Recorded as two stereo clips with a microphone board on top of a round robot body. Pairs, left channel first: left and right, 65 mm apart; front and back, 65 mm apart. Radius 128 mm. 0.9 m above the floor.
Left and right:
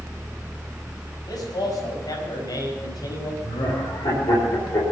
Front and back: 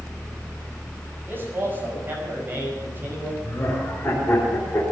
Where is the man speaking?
120° left, 6 m; by 3.3 s 115° left, 5 m.